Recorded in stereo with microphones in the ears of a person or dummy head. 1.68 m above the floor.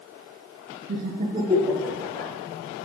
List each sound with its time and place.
0.9 s laughter: 60° right (ahead or behind), 0.5 m; by 2.3 s 15° left (ahead or behind), 0.9 m